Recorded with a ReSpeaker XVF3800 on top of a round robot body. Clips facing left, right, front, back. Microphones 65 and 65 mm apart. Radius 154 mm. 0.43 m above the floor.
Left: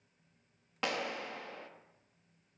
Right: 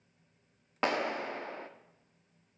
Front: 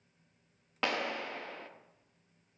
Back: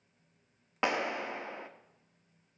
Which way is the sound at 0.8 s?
115° right.